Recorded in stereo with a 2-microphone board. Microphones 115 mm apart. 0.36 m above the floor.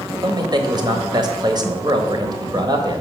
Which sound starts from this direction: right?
A man speaking, at 0.2 s.